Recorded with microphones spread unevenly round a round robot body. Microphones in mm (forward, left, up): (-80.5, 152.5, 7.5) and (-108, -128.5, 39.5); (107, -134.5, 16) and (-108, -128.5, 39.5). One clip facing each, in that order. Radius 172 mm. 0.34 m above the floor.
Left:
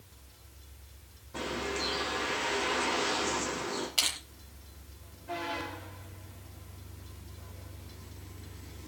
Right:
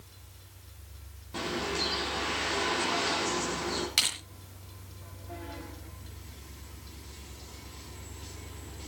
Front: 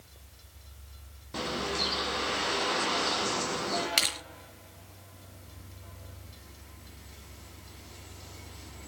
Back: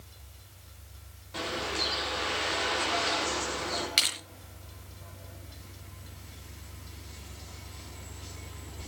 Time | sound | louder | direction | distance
1.3 | a bird | right 2 dB, front 2 dB | 35° right | 5.5 m
4.0 | crushing | even, front 3 dB | 30° right | 5 m